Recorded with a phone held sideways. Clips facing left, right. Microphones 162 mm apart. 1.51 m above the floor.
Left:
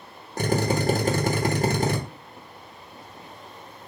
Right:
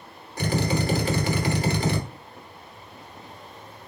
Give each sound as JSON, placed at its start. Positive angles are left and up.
{"t": 0.4, "sound": "a drill", "side_deg": 45, "distance_m": 0.9}